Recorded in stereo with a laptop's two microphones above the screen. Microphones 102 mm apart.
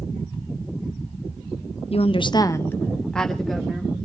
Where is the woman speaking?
70° left (ahead or behind), 0.6 m; by 3.9 s 5° right (ahead or behind), 2 m.